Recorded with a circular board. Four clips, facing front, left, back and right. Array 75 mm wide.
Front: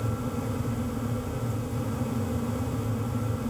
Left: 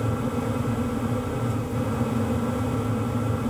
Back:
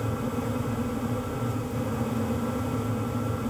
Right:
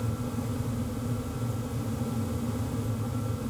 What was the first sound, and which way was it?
Only background noise.